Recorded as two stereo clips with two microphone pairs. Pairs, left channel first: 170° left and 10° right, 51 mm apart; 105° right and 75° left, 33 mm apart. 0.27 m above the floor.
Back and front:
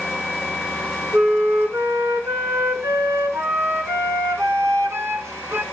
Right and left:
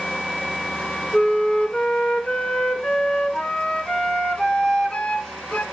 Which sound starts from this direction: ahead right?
A flute, at 1.1 s.